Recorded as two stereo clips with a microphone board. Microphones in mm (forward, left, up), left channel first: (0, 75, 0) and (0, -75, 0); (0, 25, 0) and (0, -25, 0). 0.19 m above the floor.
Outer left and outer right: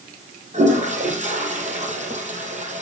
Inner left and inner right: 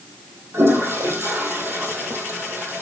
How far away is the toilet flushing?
About 2.5 m.